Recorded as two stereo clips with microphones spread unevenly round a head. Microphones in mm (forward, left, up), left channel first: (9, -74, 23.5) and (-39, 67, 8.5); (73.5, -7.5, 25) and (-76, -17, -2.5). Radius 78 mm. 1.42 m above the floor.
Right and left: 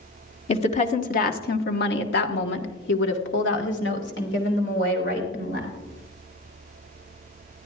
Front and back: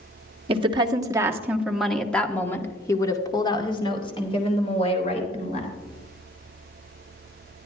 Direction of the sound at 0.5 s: 120° right.